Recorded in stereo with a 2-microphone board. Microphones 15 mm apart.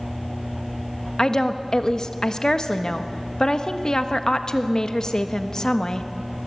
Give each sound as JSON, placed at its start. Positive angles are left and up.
{"t": 1.2, "sound": "a woman speaking", "side_deg": 60, "distance_m": 1.3}